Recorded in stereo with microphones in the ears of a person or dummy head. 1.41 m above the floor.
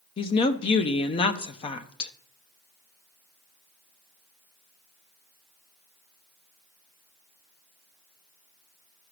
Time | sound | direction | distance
0.2 | a woman speaking | 30° left (ahead or behind) | 0.6 m